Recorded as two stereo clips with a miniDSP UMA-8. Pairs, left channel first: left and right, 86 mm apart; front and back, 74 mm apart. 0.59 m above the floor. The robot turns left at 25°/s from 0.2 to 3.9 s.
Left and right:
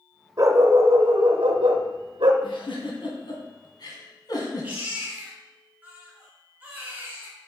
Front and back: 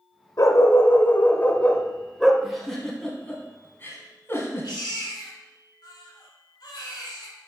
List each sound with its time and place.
0.4 s a dog barking: 40° right, 0.9 m; by 2.3 s 90° right, 0.9 m
2.4 s a giggle: 90° left, 1.8 m; by 4.7 s 55° left, 1.8 m
4.6 s a baby crying: 20° right, 2 m